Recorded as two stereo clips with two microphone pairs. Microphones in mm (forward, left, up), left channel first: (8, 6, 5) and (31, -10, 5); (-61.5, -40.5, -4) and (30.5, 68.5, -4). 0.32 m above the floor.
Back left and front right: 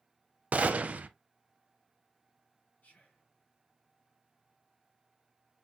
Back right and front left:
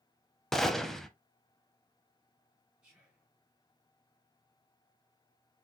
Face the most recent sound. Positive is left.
turn(degrees=135)